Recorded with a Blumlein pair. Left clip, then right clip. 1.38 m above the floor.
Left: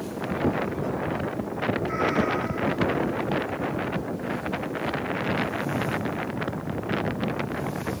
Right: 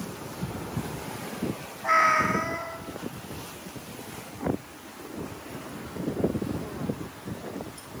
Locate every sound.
1.8 s a cat meowing: 40° right, 3.5 m